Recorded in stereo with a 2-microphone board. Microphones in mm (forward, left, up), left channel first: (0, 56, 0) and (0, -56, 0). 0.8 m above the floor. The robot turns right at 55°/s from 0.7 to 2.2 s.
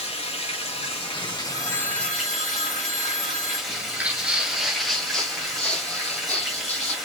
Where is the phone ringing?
120° right, 1.0 m; by 3.6 s 80° right, 1.0 m.